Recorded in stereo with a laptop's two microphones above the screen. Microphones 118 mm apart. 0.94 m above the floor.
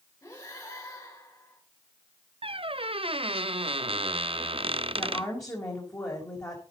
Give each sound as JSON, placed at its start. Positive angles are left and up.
{"t": 0.2, "sound": "breathing", "side_deg": 30, "distance_m": 6.0}
{"t": 2.4, "sound": "a squeak", "side_deg": -50, "distance_m": 0.5}
{"t": 5.0, "sound": "a woman speaking", "side_deg": 25, "distance_m": 4.0}